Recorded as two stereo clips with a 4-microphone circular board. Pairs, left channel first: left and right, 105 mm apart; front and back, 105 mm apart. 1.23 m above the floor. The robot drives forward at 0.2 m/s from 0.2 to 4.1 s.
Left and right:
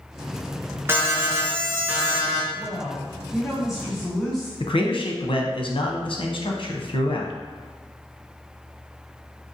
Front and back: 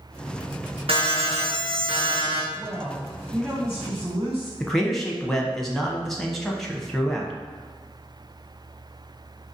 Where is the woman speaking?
Straight behind, 1.6 m.